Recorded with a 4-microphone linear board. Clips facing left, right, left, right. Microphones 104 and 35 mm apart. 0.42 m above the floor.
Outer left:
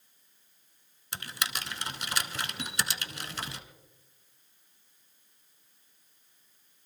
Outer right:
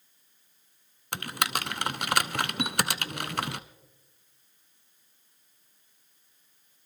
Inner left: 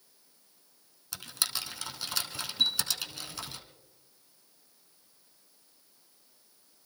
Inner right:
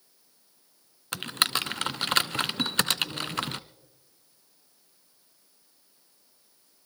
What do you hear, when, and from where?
1.1 s typing on a keyboard: 60° right (ahead or behind), 0.6 m
2.6 s a chime: 40° left (ahead or behind), 3.5 m